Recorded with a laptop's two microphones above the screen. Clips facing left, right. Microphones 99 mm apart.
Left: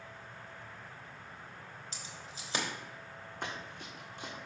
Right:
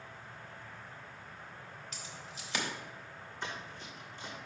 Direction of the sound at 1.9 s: 30° left (ahead or behind).